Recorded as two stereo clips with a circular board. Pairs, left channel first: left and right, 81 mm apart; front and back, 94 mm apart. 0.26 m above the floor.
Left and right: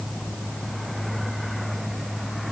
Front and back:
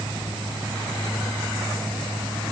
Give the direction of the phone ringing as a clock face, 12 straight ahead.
No phone ringing in this recording.